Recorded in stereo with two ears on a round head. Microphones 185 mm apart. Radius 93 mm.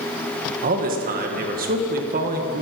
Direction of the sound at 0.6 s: 45° right (ahead or behind).